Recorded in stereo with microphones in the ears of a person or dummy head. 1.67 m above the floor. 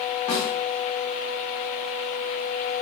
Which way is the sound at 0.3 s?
25° left (ahead or behind).